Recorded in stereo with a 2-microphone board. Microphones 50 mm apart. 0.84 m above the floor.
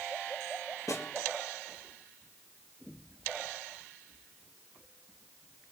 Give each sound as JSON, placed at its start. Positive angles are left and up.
{"t": 0.9, "sound": "a snare drum", "side_deg": 80, "distance_m": 4.0}